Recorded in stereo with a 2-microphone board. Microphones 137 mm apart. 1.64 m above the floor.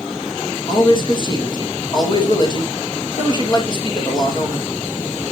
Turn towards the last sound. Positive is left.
turn(degrees=40)  # may be behind; listen again after turning